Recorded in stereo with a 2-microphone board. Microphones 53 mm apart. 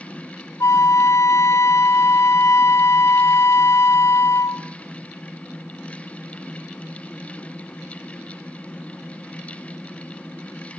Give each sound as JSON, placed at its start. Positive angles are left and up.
{"t": 0.6, "sound": "a flute", "side_deg": 60, "distance_m": 0.7}